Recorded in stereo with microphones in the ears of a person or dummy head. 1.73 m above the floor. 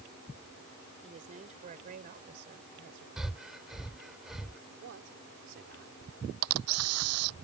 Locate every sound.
1.0 s a woman speaking: 30° right (ahead or behind); by 3.1 s 50° right (ahead or behind)
3.2 s breathing: 5° right (ahead or behind)
4.8 s a man speaking: 60° right (ahead or behind)
6.4 s a camera shutter: 85° right